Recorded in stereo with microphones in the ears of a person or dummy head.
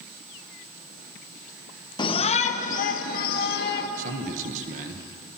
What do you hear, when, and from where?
2.0 s a shout: 20° left (ahead or behind), 1.1 m; by 3.9 s 50° left (ahead or behind), 3 m
4.0 s a man speaking: 45° right (ahead or behind), 1.7 m